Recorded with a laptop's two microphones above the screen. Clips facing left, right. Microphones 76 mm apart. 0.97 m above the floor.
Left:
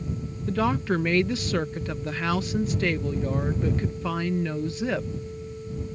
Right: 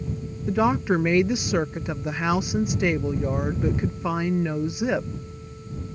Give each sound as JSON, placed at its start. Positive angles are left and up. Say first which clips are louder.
{"t": 0.5, "sound": "a woman speaking", "louder": "right 3 dB", "side_deg": -15}